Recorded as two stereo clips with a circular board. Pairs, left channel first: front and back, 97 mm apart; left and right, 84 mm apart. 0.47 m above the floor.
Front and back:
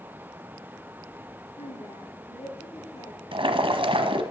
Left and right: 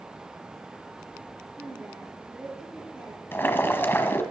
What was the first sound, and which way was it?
A woman speaking, 10° right.